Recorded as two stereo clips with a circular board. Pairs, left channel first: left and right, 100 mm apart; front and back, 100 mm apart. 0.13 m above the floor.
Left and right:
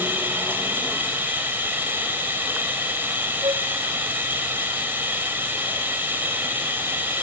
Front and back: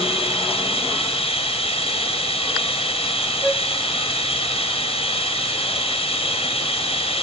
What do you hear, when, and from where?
0.0 s running water: 15° right, 3.5 m
3.4 s a flute: 90° right, 1.1 m